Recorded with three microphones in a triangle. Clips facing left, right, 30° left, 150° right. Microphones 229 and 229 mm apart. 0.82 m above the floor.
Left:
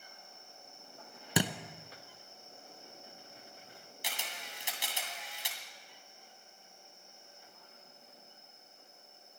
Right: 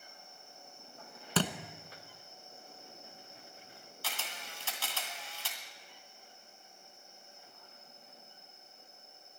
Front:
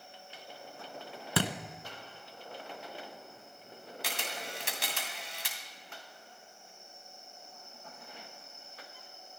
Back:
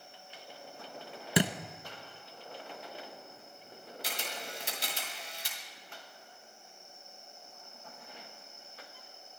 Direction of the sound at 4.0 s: 15° left.